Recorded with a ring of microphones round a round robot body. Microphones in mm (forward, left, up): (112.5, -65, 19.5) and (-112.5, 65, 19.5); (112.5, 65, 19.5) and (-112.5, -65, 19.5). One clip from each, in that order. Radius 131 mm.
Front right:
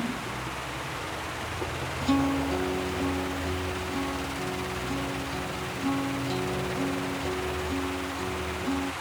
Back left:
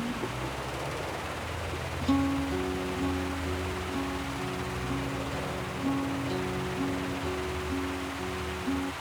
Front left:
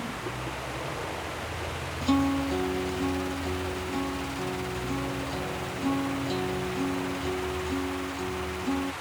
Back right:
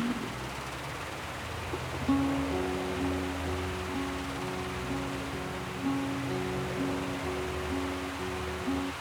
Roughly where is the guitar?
Ahead left.